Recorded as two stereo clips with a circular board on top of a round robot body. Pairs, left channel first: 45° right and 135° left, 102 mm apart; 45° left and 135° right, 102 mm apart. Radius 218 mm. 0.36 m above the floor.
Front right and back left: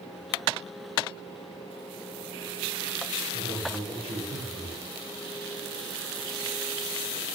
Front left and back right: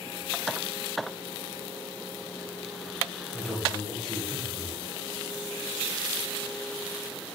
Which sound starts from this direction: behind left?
A man speaking, at 3.3 s.